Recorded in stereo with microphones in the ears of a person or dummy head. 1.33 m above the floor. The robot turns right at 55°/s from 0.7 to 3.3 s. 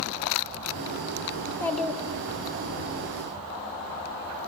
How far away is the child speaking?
About 2.5 m.